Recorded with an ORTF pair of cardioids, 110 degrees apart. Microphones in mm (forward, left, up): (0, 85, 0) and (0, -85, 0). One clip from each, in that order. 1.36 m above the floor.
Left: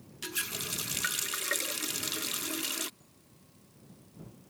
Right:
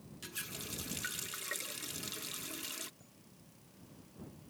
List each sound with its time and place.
0.2 s a running tap: 45° left
3.0 s a chime: 25° right